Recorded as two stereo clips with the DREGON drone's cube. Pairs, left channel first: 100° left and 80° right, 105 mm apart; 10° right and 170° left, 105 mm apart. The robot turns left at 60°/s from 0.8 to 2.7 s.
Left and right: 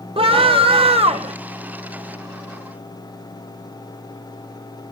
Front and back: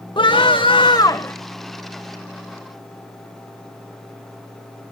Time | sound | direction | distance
0.2 | a scream | 50° right | 1.6 m